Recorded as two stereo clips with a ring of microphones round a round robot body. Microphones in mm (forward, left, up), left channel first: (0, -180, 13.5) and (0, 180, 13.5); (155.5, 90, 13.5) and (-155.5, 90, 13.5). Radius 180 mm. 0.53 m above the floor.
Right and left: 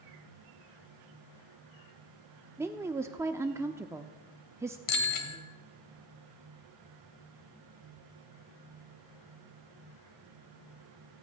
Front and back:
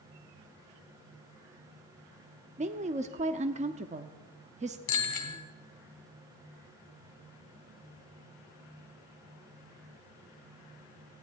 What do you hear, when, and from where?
2.6 s a woman speaking: 160° left, 0.6 m
4.9 s a bicycle bell: 55° right, 2 m